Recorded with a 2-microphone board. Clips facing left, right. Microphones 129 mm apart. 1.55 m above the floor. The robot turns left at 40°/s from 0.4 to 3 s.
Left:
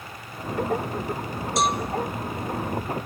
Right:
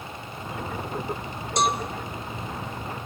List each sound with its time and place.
1.6 s a cowbell: centre (ahead or behind), 1.0 m; by 1.8 s 5° right (ahead or behind), 1.0 m